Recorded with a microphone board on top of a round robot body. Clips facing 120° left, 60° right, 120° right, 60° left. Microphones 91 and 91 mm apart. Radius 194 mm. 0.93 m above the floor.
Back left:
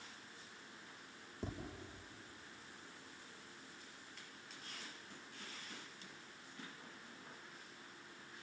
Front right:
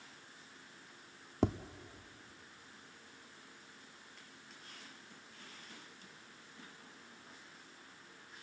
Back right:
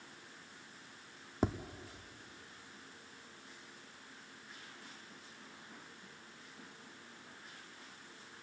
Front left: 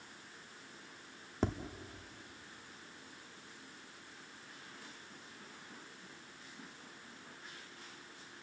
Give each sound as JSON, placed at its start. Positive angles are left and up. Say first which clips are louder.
{"t": 1.4, "sound": "tapping", "louder": "front right 13 dB, back right 1 dB", "azimuth_deg": -40, "distance_m": 0.8}